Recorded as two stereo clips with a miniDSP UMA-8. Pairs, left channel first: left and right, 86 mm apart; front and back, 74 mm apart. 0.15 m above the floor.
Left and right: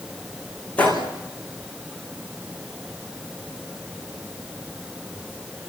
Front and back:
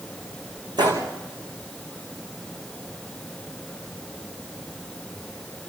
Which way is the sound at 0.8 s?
165° left.